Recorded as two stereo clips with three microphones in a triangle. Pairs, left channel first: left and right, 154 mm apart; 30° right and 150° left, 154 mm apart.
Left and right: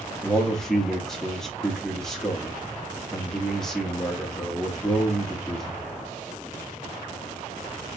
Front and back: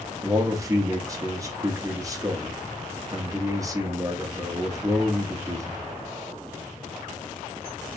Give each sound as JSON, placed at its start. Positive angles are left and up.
{"t": 0.2, "sound": "a man speaking", "azimuth_deg": 175, "distance_m": 0.8}